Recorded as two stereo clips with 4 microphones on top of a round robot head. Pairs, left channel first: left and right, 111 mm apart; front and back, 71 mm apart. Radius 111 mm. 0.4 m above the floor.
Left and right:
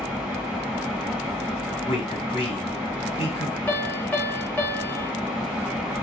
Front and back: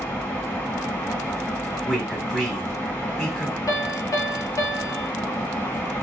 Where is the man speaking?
90° left, 1.3 m.